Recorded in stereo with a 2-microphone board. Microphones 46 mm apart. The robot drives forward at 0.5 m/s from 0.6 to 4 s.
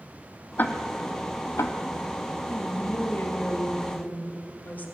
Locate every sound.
0.6 s ticking: 45° left (ahead or behind), 0.8 m; by 1.8 s 80° left, 0.6 m
2.5 s a woman speaking: 50° left (ahead or behind), 2.0 m; by 4.9 s 40° left (ahead or behind), 2.5 m